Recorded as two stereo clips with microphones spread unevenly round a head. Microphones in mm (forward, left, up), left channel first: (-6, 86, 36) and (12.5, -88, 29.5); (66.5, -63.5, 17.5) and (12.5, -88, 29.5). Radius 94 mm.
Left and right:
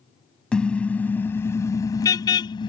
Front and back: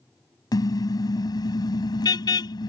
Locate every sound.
0.5 s a car horn: 10° left; by 2.7 s 30° left